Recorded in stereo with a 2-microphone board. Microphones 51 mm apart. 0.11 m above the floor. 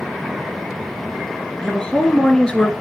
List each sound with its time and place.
1.6 s a woman speaking: 15° left (ahead or behind), 1.2 m